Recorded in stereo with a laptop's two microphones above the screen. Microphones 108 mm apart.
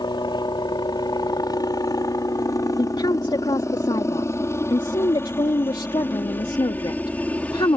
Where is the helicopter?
45° left (ahead or behind); by 7.8 s 10° left (ahead or behind).